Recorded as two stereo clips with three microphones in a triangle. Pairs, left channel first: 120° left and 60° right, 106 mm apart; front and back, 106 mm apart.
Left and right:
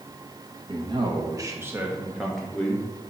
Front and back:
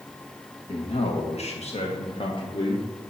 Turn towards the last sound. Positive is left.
turn(degrees=50)